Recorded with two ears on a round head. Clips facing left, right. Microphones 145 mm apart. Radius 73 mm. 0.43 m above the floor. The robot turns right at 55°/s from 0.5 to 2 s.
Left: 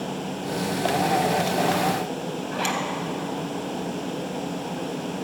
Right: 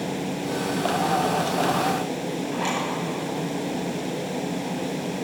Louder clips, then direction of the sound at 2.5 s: Left 1 dB; 65° left (ahead or behind).